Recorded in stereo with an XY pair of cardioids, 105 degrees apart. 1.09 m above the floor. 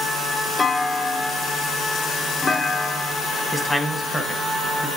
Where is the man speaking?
5° left, 1.4 m.